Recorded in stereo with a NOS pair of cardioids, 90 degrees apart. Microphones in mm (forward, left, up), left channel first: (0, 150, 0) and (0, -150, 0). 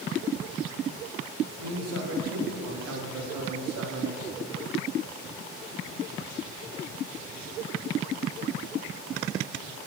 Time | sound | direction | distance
1.6 | a man speaking | 55° right | 4 m